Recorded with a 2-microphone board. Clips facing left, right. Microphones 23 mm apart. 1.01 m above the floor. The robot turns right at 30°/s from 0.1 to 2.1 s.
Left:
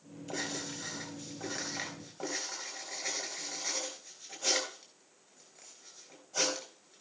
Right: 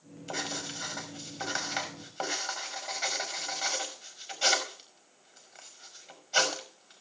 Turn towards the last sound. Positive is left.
turn(degrees=-85)